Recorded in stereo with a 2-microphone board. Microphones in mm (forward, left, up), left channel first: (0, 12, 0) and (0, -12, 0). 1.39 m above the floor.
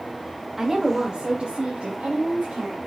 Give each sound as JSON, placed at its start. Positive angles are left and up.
{"t": 0.6, "sound": "a woman speaking", "side_deg": -5, "distance_m": 0.7}